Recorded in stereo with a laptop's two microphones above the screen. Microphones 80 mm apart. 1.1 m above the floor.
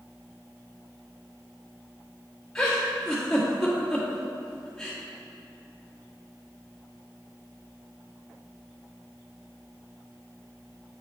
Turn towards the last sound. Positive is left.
turn(degrees=10)  # may be behind; listen again after turning